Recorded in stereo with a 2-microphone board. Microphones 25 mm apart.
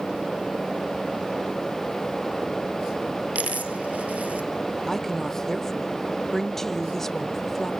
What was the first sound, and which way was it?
A dropped coin, 70° right (ahead or behind).